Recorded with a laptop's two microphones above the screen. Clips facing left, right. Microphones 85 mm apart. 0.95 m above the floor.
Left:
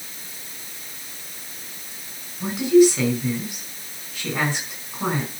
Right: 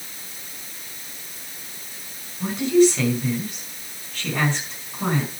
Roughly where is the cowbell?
I don't hear a cowbell.